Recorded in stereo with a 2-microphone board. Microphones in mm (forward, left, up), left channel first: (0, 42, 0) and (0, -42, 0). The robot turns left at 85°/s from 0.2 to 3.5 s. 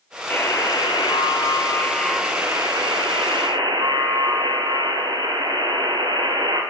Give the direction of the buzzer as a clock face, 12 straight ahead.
7 o'clock.